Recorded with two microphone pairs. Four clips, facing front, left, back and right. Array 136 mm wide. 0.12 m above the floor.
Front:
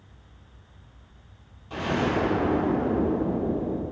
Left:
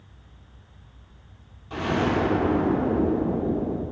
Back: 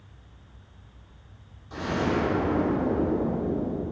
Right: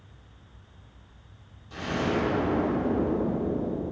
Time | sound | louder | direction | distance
1.7 | an explosion | left 4 dB, front 1 dB | 40° left | 2 m